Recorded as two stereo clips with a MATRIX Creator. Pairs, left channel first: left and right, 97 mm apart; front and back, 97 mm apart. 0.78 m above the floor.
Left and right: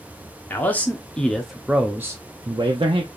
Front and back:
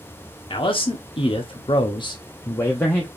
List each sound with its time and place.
0.5 s a man speaking: 20° left, 1.4 m; by 3.1 s 75° right, 0.9 m